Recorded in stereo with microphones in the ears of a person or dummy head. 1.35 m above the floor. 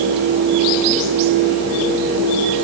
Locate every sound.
Only background noise.